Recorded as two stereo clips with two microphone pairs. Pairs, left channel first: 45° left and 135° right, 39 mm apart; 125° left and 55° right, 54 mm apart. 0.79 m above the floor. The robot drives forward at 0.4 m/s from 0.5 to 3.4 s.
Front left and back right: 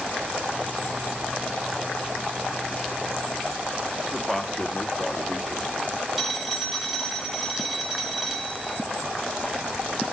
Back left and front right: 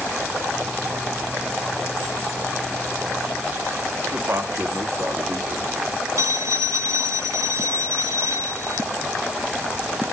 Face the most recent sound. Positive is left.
turn(degrees=-50)